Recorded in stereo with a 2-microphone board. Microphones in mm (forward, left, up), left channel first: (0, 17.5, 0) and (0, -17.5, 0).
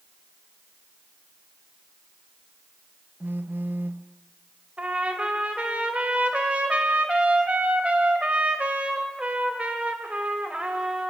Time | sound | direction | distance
3.2 | a phone buzzing | 75° right (ahead or behind) | 0.9 m
4.8 | a trumpet | 40° right (ahead or behind) | 2.5 m